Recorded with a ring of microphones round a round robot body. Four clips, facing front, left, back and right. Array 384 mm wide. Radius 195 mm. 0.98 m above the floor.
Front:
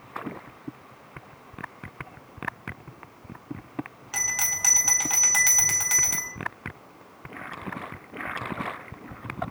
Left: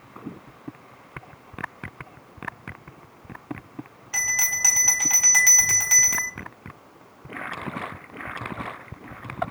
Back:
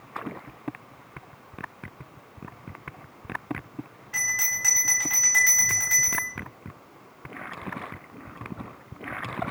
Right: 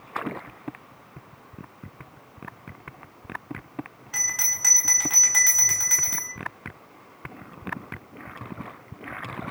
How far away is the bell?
About 2.5 m.